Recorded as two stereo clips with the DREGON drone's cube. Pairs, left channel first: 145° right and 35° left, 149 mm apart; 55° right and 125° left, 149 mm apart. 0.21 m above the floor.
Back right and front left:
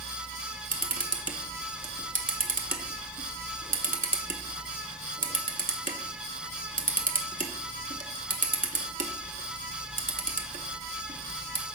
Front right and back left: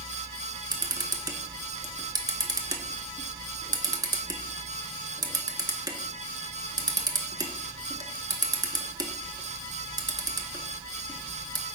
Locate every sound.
0.7 s a camera shutter: 60° left, 0.6 m